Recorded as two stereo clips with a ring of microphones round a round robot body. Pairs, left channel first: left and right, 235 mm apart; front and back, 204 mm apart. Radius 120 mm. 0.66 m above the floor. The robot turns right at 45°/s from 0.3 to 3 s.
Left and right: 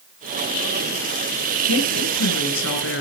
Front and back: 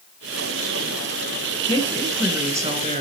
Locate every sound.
1.7 s a woman speaking: 65° left, 4 m; by 3.0 s 125° left, 4 m